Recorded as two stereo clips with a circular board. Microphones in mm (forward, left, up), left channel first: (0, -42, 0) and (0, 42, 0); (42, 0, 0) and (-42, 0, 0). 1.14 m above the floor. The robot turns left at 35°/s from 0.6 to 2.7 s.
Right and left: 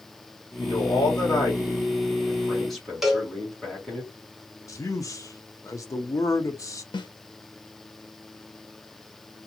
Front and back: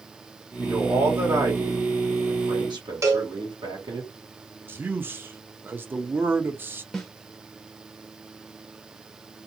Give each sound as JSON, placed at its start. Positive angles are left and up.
{"t": 0.6, "sound": "a man speaking", "azimuth_deg": -105, "distance_m": 1.4}
{"t": 3.0, "sound": "a cowbell", "azimuth_deg": 170, "distance_m": 0.8}
{"t": 4.7, "sound": "a man speaking", "azimuth_deg": -125, "distance_m": 0.5}
{"t": 6.9, "sound": "a snare drum", "azimuth_deg": -85, "distance_m": 0.7}